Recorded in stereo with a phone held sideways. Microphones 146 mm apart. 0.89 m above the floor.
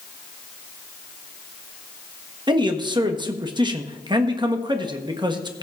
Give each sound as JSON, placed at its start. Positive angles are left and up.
{"t": 2.5, "sound": "a man speaking", "side_deg": -30, "distance_m": 1.1}